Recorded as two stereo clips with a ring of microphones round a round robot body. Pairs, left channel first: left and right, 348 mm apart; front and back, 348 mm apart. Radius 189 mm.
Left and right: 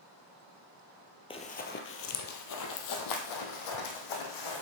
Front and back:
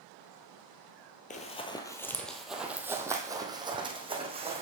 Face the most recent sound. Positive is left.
turn(degrees=105)